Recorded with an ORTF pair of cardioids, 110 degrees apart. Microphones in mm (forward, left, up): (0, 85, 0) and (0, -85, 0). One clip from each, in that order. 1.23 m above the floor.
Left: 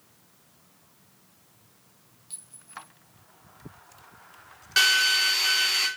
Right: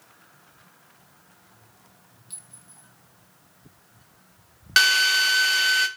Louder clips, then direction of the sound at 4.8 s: Right 3 dB; 35° right.